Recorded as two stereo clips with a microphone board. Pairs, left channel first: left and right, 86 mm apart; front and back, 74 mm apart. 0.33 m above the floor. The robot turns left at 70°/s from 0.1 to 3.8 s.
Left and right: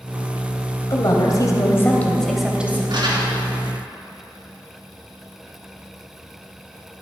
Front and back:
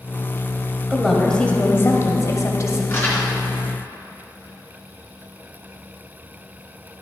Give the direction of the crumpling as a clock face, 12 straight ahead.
2 o'clock.